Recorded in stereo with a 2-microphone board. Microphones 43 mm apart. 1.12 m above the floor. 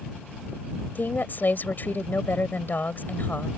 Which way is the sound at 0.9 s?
45° left (ahead or behind).